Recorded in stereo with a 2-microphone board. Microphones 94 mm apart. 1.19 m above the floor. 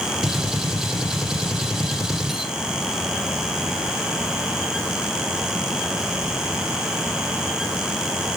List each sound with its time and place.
0.2 s a gunshot: 5° right (ahead or behind), 1.3 m